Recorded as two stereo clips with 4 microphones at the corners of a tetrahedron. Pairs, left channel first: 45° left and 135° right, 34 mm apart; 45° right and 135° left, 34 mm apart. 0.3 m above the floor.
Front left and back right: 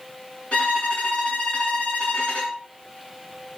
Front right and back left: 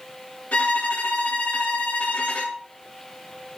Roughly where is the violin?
Ahead.